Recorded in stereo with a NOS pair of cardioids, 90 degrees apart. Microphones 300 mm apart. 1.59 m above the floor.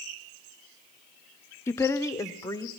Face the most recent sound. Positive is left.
turn(degrees=10)